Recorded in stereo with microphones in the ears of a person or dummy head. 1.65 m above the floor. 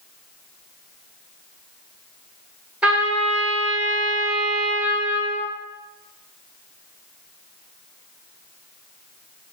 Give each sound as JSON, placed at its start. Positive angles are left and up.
{"t": 2.8, "sound": "a trumpet", "side_deg": -5, "distance_m": 0.8}